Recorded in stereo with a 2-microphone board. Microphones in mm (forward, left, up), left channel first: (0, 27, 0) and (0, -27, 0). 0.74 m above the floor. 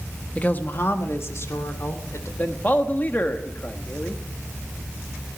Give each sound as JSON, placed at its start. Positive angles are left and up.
{"t": 0.3, "sound": "a woman speaking", "side_deg": 25, "distance_m": 1.1}
{"t": 2.4, "sound": "a man speaking", "side_deg": 35, "distance_m": 1.2}